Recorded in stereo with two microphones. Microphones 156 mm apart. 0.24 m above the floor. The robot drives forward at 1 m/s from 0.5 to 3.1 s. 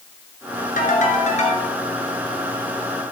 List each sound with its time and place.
0.8 s a ringtone: 60° left (ahead or behind), 1.6 m; by 1.7 s 40° left (ahead or behind), 2 m